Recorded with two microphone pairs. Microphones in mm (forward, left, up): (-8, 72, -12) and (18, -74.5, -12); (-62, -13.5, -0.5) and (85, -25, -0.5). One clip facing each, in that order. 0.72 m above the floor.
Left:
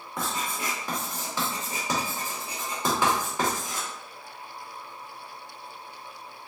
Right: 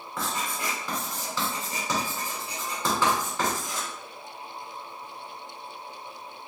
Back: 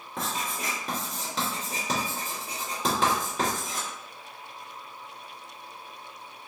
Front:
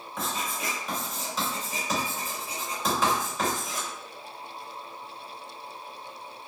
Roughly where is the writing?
Behind.